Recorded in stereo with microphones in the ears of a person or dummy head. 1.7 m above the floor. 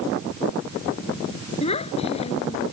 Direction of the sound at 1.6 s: 40° left (ahead or behind).